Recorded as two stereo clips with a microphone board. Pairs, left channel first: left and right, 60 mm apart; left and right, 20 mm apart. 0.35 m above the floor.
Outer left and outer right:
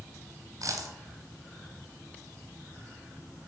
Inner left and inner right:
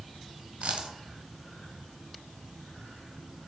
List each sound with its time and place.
0.6 s a dropped coin: 65° right (ahead or behind), 1.8 m